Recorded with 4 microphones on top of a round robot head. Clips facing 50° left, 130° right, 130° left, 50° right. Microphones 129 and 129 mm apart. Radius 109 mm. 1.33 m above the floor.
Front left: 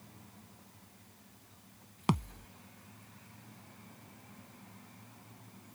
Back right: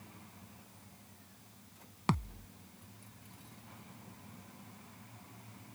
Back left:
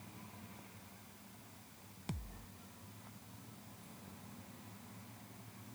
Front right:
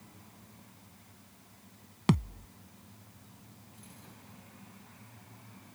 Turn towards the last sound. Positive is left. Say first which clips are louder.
# front left 2 dB, front right 19 dB
turn(degrees=-30)